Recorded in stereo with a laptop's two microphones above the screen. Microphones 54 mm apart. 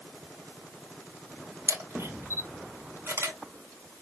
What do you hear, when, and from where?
1.7 s a camera shutter: 60° right (ahead or behind), 1.9 m